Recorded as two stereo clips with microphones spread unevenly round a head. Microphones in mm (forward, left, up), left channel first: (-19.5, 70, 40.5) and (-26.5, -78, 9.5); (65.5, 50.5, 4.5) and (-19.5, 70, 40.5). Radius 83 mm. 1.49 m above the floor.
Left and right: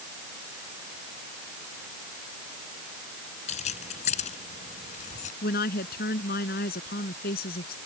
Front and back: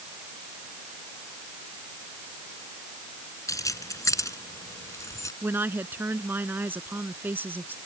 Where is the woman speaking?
105° left.